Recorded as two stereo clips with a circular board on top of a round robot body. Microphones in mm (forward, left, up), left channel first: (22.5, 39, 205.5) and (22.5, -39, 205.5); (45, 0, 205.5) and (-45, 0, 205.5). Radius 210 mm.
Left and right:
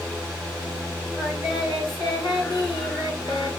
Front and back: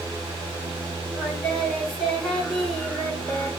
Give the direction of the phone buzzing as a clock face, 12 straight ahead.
No phone buzzing in this recording.